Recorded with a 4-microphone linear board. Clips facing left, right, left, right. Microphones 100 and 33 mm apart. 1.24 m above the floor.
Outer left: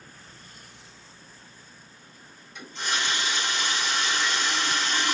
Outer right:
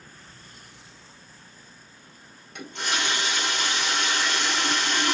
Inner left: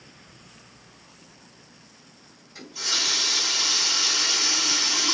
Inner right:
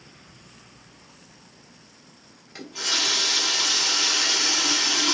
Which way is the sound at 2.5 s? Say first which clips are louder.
Outer right 1 dB, inner right 2 dB; 70° right (ahead or behind).